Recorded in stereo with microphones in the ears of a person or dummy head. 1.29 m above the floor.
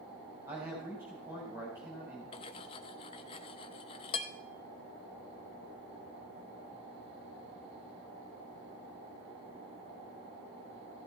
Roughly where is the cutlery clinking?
Left.